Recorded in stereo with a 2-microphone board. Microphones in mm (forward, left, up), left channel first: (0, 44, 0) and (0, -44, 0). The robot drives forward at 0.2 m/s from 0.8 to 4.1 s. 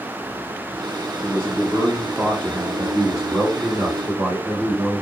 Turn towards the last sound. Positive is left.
turn(degrees=-15)  # may be behind; listen again after turning